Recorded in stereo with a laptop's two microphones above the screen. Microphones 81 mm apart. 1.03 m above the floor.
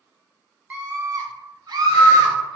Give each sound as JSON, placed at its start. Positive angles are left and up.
{"t": 0.7, "sound": "a scream", "side_deg": -20, "distance_m": 0.5}